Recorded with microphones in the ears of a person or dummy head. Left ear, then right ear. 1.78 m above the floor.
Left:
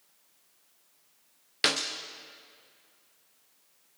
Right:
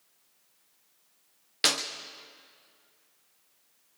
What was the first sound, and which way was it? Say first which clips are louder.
A clap: right 1 dB; 5° right (ahead or behind).